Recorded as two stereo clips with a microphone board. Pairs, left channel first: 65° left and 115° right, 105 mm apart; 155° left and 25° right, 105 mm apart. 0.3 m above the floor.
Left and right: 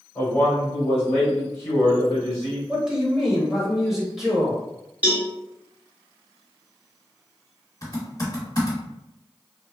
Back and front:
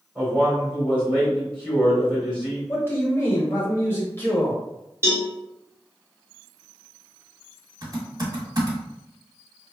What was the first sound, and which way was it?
A man speaking, 45° left.